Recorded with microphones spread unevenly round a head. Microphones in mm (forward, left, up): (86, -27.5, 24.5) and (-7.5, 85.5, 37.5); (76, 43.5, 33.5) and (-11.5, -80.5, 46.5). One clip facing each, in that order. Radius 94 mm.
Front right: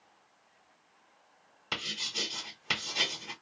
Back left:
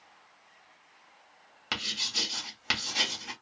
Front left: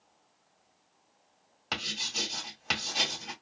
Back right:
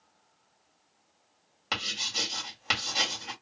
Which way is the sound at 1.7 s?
150° left.